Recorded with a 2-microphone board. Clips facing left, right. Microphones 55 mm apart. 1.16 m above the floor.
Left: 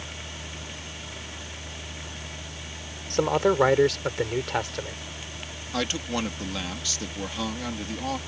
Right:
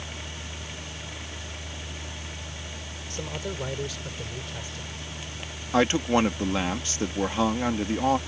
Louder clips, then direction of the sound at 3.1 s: Left 13 dB; 65° left (ahead or behind).